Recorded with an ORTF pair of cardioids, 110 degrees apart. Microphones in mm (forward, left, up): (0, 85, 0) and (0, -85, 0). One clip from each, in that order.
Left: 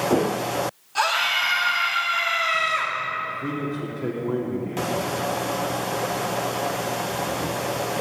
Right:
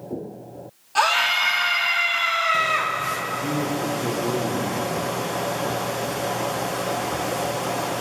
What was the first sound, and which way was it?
A scream, 30° right.